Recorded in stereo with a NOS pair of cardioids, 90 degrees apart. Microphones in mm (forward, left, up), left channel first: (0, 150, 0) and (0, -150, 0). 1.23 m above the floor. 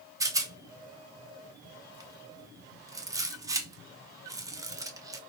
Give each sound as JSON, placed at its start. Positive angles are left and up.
{"t": 0.2, "sound": "a rattle", "azimuth_deg": -10, "distance_m": 0.6}